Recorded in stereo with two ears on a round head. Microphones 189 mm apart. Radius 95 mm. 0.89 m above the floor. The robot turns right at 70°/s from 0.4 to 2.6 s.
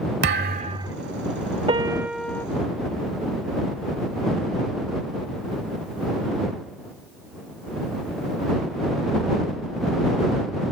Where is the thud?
50° right; by 0.9 s 10° right.